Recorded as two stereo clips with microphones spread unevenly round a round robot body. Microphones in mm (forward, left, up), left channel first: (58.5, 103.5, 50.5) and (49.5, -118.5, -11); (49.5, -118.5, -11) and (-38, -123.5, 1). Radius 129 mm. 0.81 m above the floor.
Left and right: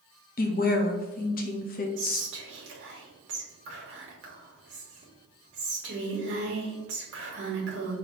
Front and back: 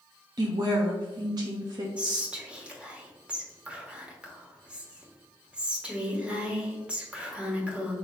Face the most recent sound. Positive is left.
turn(degrees=-95)